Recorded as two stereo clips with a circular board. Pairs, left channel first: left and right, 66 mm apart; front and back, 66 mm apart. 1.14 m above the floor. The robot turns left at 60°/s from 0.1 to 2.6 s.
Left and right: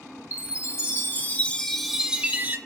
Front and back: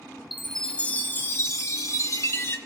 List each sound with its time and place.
0.3 s a chime: 95° left, 0.8 m; by 2.6 s 40° right, 0.8 m